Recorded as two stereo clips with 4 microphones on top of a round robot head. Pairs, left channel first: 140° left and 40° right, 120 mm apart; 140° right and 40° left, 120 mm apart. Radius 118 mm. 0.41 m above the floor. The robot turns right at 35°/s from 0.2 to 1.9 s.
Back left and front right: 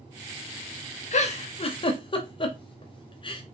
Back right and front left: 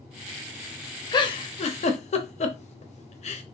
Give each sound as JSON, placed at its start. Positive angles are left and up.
{"t": 1.1, "sound": "a giggle", "azimuth_deg": 160, "distance_m": 0.8}